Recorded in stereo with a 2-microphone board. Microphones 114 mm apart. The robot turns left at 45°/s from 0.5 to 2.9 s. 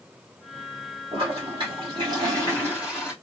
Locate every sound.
1.1 s a toilet flushing: 90° right, 1.6 m; by 3.1 s 170° right, 1.6 m